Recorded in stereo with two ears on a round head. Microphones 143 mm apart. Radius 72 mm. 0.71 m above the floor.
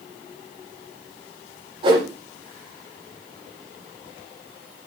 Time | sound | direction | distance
1.8 | a whoosh | 30° right (ahead or behind) | 5.5 m